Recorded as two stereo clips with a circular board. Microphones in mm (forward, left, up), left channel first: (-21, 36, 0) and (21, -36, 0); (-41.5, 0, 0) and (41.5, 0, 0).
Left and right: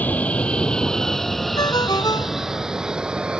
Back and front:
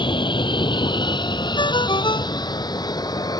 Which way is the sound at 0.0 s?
170° right.